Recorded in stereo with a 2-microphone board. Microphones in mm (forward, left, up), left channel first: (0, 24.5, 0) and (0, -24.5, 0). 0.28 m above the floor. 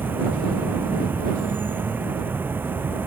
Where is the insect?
40° right (ahead or behind).